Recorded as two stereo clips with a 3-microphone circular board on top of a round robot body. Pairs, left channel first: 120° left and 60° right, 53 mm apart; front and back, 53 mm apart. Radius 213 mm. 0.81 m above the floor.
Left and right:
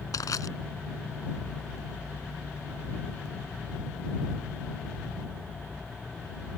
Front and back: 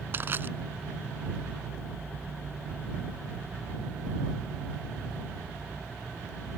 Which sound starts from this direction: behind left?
Crushing, at 0.1 s.